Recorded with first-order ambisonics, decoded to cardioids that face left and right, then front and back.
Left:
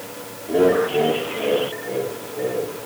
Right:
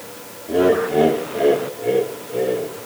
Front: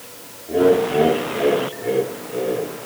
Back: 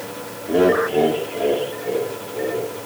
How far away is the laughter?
About 0.7 m.